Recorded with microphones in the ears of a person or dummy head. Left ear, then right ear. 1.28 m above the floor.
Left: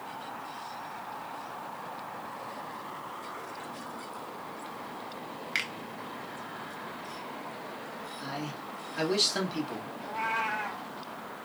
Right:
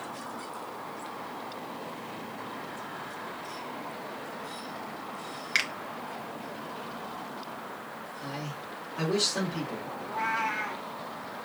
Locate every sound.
5.5 s a finger snap: 10° right (ahead or behind), 0.6 m
8.2 s a man speaking: 60° left (ahead or behind), 1.6 m
10.0 s a cat meowing: 50° left (ahead or behind), 1.7 m